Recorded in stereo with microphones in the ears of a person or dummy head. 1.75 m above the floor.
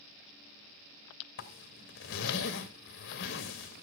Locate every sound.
1.4 s a zipper: 50° left (ahead or behind), 1.7 m